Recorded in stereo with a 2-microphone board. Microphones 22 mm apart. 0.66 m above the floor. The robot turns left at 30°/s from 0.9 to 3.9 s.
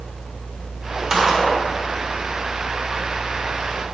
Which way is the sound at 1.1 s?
25° right (ahead or behind).